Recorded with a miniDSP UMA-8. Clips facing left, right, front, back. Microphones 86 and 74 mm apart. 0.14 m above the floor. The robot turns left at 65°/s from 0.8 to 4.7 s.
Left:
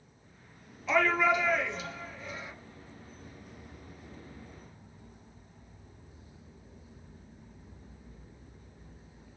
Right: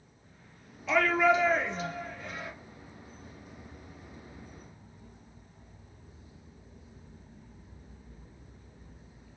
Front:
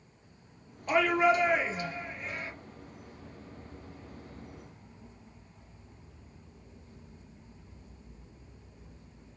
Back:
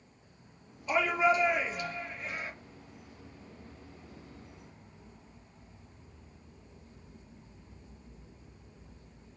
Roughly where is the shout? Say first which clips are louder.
Right 2 dB, front 2 dB; ahead.